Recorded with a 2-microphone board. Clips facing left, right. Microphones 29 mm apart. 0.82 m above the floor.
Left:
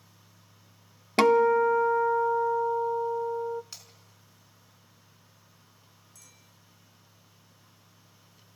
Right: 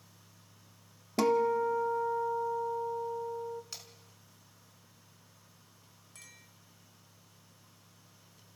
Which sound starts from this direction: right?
A clink, at 6.2 s.